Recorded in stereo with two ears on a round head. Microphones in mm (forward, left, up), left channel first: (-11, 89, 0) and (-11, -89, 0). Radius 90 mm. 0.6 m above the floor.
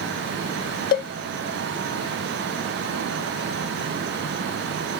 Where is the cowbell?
45° left (ahead or behind), 0.6 m.